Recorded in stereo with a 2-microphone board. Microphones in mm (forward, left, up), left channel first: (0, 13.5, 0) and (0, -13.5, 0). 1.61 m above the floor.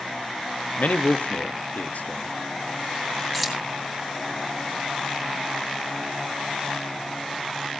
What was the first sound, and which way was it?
A man speaking, 70° left (ahead or behind).